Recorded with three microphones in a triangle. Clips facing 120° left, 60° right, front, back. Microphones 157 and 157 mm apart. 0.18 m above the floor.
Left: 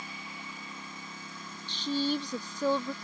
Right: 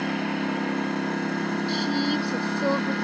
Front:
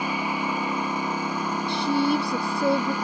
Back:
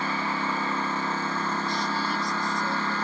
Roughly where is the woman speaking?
Ahead.